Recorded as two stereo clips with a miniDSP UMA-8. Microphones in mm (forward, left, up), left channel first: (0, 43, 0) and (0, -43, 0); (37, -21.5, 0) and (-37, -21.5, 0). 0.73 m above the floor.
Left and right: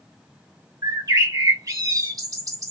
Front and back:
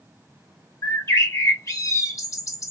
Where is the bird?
45° right, 0.9 m.